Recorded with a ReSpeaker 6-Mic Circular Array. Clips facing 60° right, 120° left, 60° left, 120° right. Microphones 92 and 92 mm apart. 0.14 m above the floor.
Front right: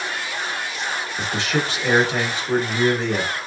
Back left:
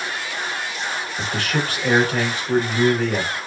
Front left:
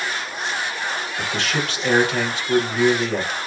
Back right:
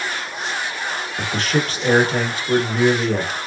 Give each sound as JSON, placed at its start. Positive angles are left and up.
{"t": 1.2, "sound": "a man speaking", "azimuth_deg": -115, "distance_m": 1.6}